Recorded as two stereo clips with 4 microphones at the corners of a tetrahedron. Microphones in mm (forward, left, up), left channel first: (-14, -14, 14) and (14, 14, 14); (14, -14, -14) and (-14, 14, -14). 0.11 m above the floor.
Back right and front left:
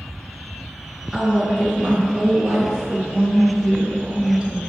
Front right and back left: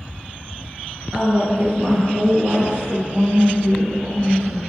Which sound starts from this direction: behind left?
A woman speaking, at 1.1 s.